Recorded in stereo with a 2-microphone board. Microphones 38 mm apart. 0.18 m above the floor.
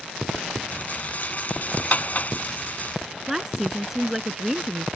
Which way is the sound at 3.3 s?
10° right (ahead or behind).